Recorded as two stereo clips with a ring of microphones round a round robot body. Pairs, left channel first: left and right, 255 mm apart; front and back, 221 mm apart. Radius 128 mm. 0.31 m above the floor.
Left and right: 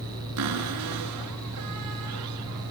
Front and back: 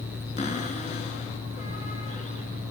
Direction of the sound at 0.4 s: 65° right.